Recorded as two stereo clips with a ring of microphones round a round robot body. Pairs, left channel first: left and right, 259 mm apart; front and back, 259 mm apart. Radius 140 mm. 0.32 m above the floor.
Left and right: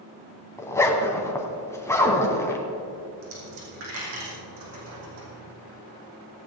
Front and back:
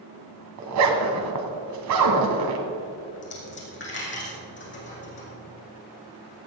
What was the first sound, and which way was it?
A zipper, 170° left.